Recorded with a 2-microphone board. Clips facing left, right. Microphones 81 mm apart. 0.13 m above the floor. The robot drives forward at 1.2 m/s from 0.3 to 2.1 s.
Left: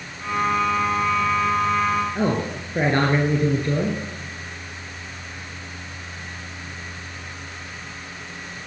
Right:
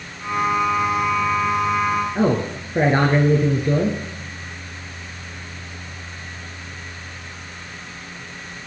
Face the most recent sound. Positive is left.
turn(degrees=-10)  # may be behind; listen again after turning